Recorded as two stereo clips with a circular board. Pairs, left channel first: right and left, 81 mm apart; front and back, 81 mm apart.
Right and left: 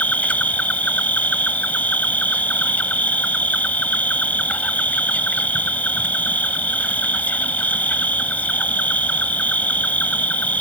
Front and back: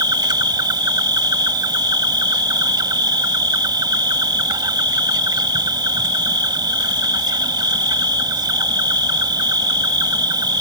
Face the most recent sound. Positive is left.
turn(degrees=-160)